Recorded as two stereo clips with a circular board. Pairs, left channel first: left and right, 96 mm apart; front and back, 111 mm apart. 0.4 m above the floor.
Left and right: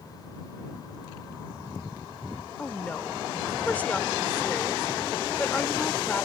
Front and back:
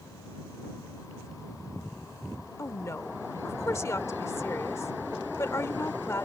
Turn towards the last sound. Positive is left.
turn(degrees=35)